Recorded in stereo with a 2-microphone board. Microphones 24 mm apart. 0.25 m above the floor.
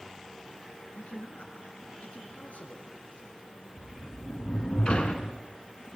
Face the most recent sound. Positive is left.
turn(degrees=45)  # may be behind; listen again after turning